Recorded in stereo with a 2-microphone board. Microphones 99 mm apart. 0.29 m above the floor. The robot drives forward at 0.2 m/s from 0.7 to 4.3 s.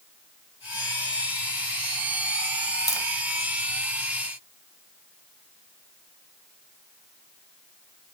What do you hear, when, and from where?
2.9 s tapping: 40° left (ahead or behind), 1.1 m